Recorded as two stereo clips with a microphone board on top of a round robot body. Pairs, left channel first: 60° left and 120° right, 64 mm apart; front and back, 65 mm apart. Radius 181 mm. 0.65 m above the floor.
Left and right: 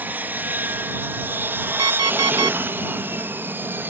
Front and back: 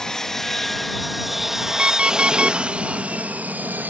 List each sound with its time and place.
0.0 s an aircraft: 75° right; by 3.9 s 145° right
1.8 s an alarm clock: 105° right